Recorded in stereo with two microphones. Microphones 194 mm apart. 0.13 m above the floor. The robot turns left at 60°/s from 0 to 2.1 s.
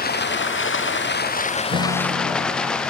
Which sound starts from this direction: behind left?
Running water, at 0.0 s.